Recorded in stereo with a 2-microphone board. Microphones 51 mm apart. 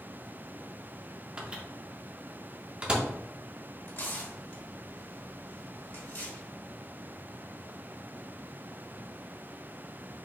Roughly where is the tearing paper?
Left.